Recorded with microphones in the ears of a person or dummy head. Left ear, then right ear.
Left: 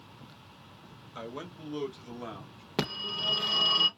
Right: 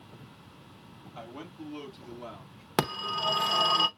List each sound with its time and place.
1.1 s a man speaking: 65° left (ahead or behind), 2 m; by 2.6 s 55° left (ahead or behind), 4 m
2.8 s a phone ringing: 35° right (ahead or behind), 0.7 m